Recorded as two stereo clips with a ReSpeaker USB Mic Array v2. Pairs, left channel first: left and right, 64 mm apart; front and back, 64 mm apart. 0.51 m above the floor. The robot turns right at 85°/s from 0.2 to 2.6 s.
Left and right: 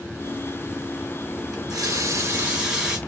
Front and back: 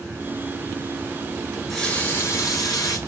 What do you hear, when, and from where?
1.5 s a running tap: 105° right, 3 m; by 3.0 s 10° right, 3 m